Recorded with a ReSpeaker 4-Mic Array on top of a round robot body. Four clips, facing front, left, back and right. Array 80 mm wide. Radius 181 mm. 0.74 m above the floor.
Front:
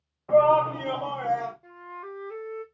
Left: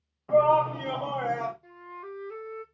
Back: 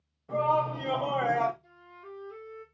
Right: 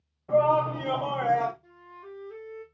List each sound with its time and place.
0.3 s a shout: 15° left, 1.0 m; by 1.5 s 160° right, 0.9 m
1.6 s a flute: 25° left, 0.6 m